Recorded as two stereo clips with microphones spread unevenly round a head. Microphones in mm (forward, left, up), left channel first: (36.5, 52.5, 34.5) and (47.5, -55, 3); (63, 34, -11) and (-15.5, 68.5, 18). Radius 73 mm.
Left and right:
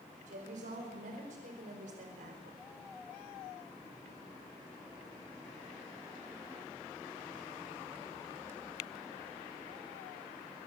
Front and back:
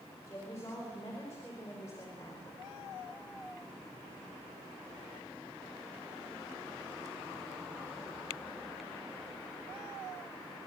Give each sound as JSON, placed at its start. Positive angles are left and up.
{"t": 0.3, "sound": "a woman speaking", "azimuth_deg": -95, "distance_m": 4.5}